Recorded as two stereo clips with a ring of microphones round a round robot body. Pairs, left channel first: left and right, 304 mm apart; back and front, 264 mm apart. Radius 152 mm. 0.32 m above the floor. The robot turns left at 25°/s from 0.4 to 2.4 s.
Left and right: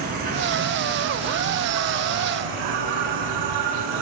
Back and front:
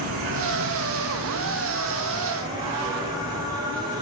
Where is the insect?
30° right, 0.8 m; by 4.0 s 80° right, 0.8 m.